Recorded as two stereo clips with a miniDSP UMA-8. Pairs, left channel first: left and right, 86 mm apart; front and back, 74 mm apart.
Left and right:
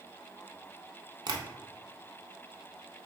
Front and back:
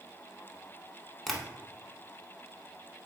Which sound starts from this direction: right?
Tapping, at 1.3 s.